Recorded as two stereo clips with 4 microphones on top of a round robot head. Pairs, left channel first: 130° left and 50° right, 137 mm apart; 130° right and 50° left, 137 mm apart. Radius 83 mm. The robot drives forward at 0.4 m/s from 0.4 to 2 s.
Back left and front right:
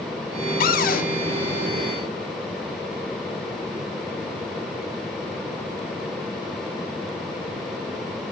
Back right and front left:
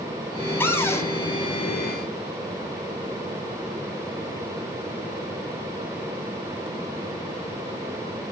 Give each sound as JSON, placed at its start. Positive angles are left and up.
{"t": 0.6, "sound": "a cupboard door", "azimuth_deg": 155, "distance_m": 1.6}